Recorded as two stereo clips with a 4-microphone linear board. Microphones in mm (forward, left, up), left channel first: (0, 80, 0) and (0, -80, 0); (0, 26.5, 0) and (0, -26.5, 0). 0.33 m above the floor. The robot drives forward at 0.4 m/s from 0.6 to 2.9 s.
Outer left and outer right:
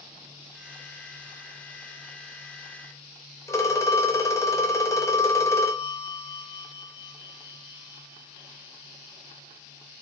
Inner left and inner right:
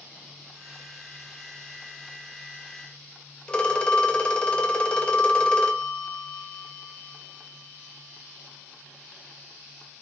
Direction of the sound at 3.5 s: 20° left (ahead or behind).